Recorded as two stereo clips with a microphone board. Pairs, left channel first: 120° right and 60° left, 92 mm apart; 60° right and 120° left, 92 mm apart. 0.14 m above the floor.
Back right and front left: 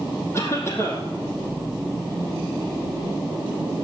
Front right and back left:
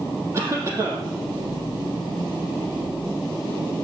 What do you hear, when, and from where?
0.3 s a cough: straight behind, 5 m